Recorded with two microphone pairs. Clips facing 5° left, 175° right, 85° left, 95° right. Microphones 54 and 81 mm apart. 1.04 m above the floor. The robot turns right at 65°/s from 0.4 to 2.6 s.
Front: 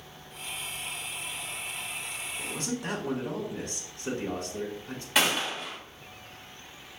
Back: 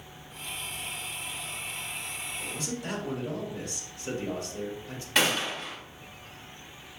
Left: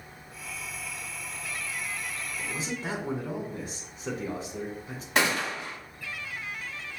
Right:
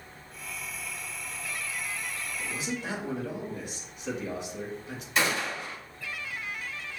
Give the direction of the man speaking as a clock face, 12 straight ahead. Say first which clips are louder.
Front 3 dB, even; 11 o'clock.